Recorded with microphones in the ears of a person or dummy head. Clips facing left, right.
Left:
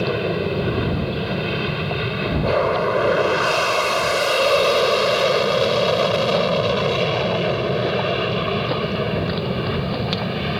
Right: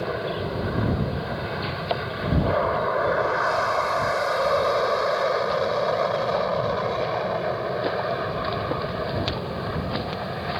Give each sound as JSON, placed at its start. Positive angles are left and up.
{"t": 0.0, "sound": "an aircraft", "side_deg": 50}